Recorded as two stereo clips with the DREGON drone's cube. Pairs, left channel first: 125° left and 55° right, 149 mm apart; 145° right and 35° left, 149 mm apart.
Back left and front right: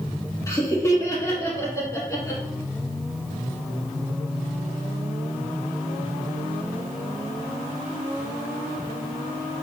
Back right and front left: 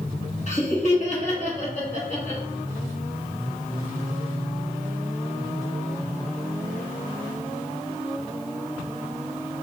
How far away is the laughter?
About 1.7 m.